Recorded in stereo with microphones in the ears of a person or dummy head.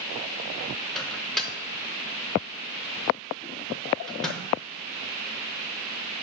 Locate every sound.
0.9 s a microwave: 5° left (ahead or behind), 0.8 m